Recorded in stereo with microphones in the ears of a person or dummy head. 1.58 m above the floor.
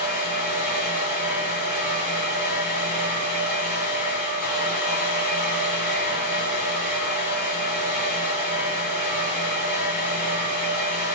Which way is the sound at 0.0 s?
15° right (ahead or behind).